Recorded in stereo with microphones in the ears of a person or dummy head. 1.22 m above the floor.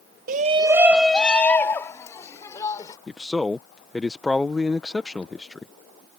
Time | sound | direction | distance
0.3 | a shout | 55° right (ahead or behind) | ?
3.1 | a man speaking | 5° left (ahead or behind) | ?